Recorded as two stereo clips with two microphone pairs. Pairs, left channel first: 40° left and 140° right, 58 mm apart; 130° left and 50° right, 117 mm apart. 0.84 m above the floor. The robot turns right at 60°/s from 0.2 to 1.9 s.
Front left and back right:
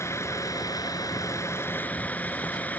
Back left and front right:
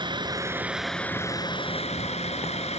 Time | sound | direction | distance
0.0 | a vehicle | straight ahead | ?